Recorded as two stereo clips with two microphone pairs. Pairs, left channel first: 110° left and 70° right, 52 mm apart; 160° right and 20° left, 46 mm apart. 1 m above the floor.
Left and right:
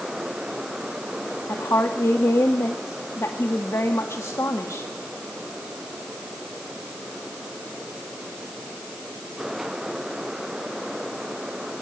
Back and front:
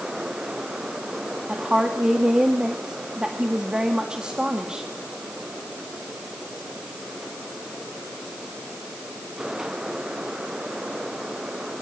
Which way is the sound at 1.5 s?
90° left.